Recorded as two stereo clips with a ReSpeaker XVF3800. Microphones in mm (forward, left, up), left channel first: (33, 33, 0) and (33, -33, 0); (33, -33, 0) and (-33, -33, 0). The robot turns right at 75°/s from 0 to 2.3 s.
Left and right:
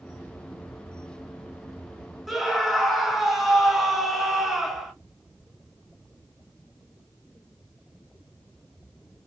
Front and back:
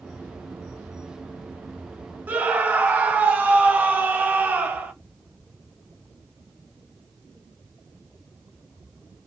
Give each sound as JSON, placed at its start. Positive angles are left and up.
{"t": 2.3, "sound": "a scream", "azimuth_deg": -175, "distance_m": 1.0}